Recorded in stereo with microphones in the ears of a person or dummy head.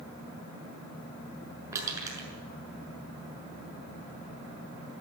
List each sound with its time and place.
1.7 s crushing: 20° right (ahead or behind), 7 m